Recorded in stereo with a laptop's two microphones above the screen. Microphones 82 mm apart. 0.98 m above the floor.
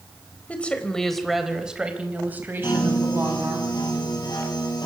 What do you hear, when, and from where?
0.5 s a woman speaking: 15° left (ahead or behind), 4 m; by 3.6 s 40° right (ahead or behind), 6 m
2.6 s a piano: 60° left (ahead or behind), 9 m